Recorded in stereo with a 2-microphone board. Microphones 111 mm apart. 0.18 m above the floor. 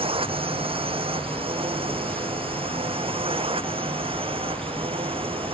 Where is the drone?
55° right (ahead or behind); by 5.5 s 50° right (ahead or behind).